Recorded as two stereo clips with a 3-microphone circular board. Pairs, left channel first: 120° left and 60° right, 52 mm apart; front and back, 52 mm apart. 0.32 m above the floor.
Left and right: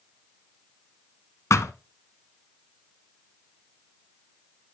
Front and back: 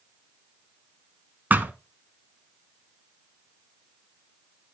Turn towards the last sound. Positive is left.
turn(degrees=130)